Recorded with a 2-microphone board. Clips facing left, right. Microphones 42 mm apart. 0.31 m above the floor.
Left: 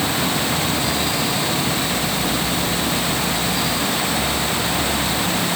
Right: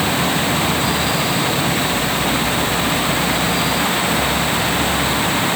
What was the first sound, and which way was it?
Only background noise.